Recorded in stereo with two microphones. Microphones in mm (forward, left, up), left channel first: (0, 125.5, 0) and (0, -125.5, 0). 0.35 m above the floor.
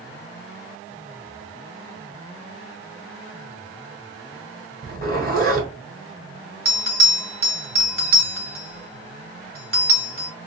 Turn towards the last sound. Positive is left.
turn(degrees=-35)  # may be behind; listen again after turning